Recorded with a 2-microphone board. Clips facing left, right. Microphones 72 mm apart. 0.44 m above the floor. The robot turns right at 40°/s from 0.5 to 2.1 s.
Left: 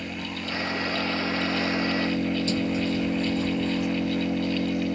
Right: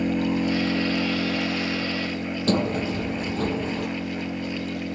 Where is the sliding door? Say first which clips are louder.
Right 2 dB; 50° right (ahead or behind).